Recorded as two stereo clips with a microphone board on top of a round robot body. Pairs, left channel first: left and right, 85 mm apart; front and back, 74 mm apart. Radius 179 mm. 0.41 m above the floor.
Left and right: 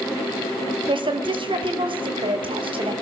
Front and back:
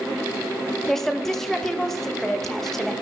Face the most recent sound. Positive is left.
turn(degrees=-85)